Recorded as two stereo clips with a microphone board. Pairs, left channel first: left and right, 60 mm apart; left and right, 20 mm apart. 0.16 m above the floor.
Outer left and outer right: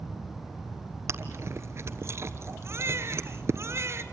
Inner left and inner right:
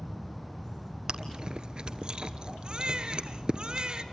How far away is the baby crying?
About 1.9 m.